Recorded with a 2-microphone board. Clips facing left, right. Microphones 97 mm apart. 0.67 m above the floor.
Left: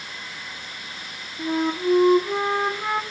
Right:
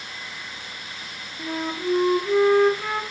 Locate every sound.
1.4 s a flute: 20° left (ahead or behind), 1.3 m